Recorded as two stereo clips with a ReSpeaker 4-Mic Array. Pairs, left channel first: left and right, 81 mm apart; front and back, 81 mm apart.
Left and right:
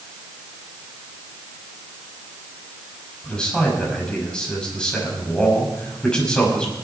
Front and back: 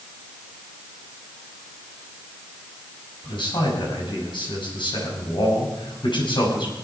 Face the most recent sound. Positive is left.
turn(degrees=10)